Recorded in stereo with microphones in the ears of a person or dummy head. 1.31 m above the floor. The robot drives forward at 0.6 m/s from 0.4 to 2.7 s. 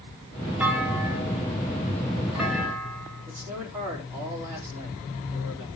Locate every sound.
0.6 s a clunk: 5° right (ahead or behind), 1.5 m
3.3 s a man speaking: 15° right (ahead or behind), 4 m